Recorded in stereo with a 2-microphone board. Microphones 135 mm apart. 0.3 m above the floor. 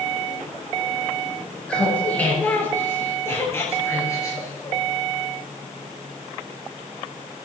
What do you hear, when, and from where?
1.7 s laughter: 10° left (ahead or behind), 5.5 m; by 4.8 s 25° left (ahead or behind), 5.5 m